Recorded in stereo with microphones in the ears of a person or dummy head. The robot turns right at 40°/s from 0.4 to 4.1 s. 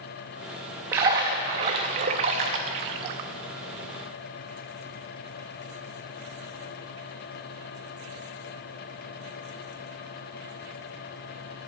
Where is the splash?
15° right (ahead or behind), 0.6 m; by 3.3 s 25° right (ahead or behind), 0.6 m.